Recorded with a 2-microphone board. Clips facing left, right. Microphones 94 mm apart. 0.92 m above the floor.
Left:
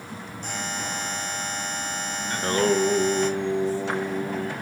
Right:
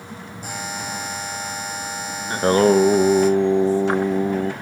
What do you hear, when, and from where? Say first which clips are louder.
0.4 s a buzzer: right 2 dB; 5° right (ahead or behind), 2 m
2.3 s singing: right 7 dB; 35° right (ahead or behind), 0.7 m